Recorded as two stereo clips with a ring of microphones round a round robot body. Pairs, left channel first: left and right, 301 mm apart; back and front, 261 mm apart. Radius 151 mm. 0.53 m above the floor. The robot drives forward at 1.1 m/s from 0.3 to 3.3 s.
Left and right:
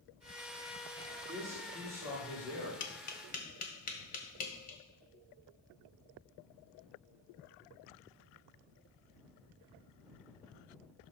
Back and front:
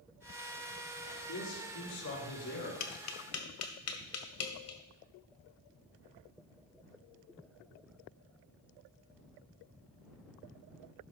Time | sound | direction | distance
1.0 | a man speaking | 170° right | 5.5 m
2.8 | tapping | 140° left | 1.3 m